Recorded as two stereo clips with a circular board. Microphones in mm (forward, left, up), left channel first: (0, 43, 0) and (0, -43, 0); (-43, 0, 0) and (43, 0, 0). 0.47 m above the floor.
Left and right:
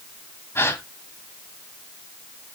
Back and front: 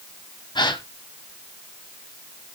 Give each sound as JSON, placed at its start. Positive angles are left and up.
{"t": 0.6, "sound": "a gasp", "azimuth_deg": 150, "distance_m": 1.6}